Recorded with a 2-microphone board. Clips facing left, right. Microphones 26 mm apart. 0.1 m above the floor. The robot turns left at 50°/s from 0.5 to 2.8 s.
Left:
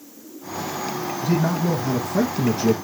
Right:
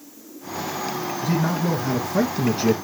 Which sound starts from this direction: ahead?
A man speaking, at 1.2 s.